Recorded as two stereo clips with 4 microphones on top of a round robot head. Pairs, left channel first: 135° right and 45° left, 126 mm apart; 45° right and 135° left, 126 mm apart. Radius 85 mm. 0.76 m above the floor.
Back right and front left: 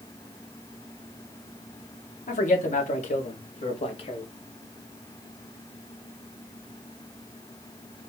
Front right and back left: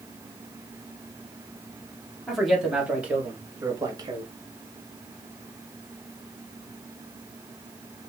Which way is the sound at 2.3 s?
135° right.